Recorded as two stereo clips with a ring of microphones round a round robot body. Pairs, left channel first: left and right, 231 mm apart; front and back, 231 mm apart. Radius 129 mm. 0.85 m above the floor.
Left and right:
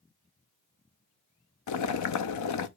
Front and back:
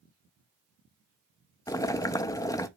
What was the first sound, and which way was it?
Boiling, 80° left.